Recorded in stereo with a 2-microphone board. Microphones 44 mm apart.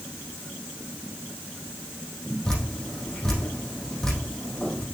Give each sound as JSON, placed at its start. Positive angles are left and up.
{"t": 2.5, "sound": "dripping", "side_deg": 15, "distance_m": 4.0}